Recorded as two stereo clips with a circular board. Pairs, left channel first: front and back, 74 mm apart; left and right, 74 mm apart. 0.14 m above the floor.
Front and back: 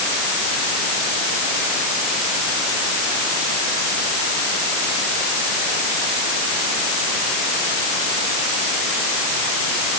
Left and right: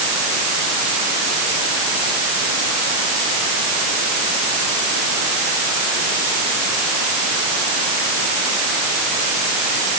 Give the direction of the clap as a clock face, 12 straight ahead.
I don't hear a clap.